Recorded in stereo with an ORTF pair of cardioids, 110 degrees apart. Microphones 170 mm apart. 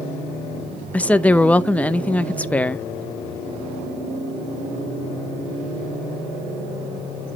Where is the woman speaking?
10° left, 0.8 m.